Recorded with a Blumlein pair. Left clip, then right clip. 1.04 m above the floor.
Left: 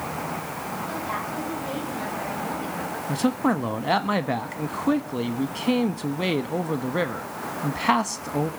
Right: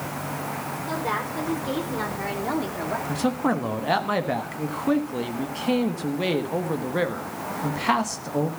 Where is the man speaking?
5° left, 1.1 m.